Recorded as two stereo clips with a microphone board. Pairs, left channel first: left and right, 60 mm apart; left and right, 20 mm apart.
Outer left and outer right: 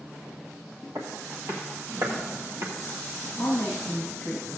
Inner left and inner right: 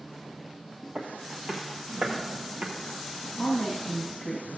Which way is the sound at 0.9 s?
55° right (ahead or behind).